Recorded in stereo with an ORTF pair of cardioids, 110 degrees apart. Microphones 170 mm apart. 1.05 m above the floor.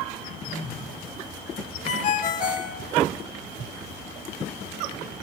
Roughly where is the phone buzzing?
Ahead left.